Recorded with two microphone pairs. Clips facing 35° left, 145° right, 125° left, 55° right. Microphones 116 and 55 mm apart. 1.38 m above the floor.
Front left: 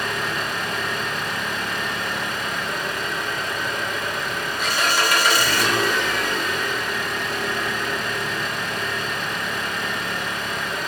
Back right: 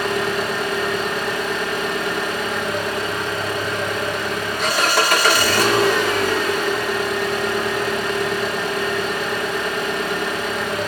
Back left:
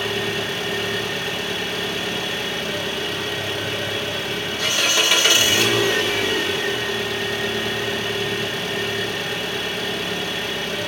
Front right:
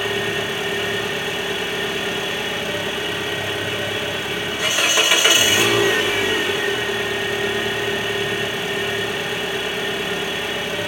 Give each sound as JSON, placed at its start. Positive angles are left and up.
{"t": 0.0, "sound": "an engine running", "azimuth_deg": -125, "distance_m": 2.5}